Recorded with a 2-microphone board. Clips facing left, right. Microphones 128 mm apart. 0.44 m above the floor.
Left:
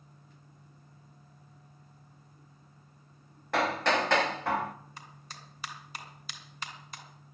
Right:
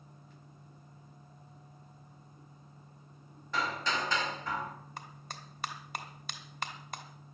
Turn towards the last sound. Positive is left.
turn(degrees=-55)  # may be behind; listen again after turning